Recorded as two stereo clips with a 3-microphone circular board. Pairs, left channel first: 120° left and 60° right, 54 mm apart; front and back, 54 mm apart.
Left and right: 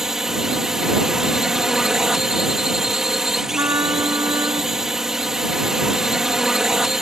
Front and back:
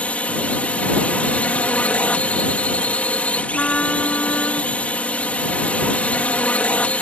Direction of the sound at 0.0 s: 10° left.